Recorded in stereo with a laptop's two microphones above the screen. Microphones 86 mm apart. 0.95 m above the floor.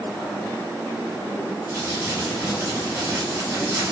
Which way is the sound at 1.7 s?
35° right (ahead or behind).